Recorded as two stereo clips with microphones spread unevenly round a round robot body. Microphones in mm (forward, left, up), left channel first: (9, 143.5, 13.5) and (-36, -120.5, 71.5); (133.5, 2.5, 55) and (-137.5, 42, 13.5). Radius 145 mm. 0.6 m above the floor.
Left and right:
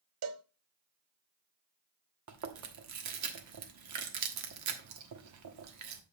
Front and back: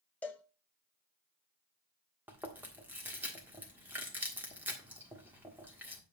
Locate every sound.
0.2 s a cowbell: 90° right, 0.5 m
2.3 s chewing: 110° right, 1.4 m